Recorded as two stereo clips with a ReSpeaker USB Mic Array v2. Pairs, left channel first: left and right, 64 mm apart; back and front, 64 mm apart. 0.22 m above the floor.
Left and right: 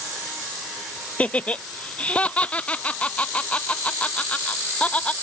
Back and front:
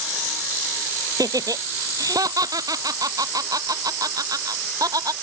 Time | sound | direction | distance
1.2 | laughter | 20° left | ?